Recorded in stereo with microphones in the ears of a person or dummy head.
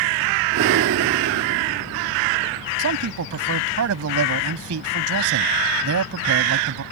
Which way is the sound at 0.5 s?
55° right (ahead or behind).